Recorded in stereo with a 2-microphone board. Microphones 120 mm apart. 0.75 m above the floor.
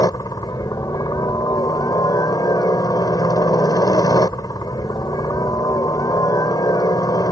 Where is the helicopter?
30° left (ahead or behind).